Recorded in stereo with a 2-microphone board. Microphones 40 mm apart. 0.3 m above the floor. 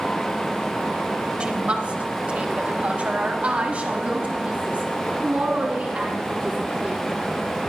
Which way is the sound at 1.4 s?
30° right (ahead or behind).